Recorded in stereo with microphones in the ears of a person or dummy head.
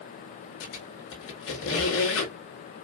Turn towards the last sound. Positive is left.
turn(degrees=75)  # may be behind; listen again after turning